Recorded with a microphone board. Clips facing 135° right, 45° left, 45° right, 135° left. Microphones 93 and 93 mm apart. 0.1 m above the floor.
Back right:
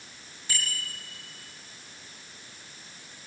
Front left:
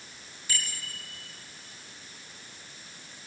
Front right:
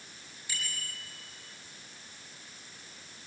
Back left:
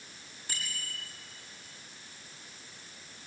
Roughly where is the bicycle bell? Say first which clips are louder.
Back right 2 dB, front right 1 dB; behind.